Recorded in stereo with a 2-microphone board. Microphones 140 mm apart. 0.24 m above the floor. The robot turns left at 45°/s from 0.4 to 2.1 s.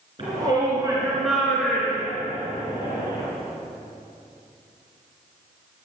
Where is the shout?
40° right (ahead or behind), 3.5 m; by 3.2 s 30° left (ahead or behind), 3.5 m.